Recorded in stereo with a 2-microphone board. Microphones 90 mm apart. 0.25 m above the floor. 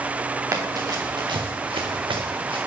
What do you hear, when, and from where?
0.5 s running footsteps: 35° right (ahead or behind), 1.8 m; by 2.6 s 75° right (ahead or behind), 1.8 m